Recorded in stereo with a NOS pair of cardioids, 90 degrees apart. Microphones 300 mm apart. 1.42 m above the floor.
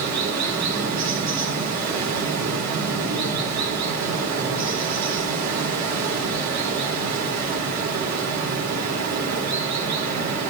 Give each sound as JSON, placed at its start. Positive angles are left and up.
{"t": 0.0, "sound": "running water", "azimuth_deg": -60, "distance_m": 4.0}